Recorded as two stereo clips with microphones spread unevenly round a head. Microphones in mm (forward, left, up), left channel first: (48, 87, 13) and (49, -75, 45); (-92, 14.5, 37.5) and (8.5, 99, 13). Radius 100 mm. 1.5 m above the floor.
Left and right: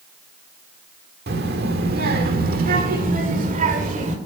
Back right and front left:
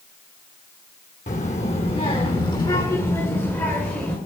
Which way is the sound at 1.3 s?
95° right.